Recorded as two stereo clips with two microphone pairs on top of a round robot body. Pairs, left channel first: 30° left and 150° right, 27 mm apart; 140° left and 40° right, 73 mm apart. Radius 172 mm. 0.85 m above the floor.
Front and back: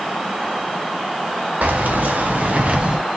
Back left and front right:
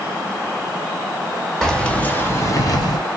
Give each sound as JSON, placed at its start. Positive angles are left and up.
{"t": 1.6, "sound": "keys jangling", "azimuth_deg": -135, "distance_m": 1.3}